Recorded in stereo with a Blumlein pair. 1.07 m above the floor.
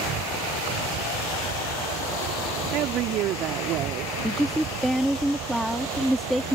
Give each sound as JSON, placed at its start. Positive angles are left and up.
{"t": 0.0, "sound": "an insect", "azimuth_deg": -30}
{"t": 2.7, "sound": "a woman speaking", "azimuth_deg": -35}
{"t": 4.2, "sound": "a woman speaking", "azimuth_deg": 0}